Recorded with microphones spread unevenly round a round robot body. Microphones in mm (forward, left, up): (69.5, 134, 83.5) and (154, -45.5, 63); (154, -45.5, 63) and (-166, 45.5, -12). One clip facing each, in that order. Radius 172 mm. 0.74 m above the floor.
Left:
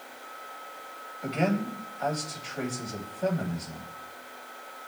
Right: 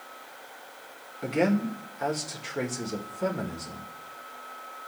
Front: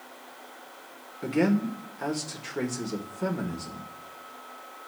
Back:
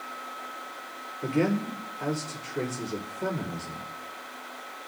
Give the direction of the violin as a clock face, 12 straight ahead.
No violin in this recording.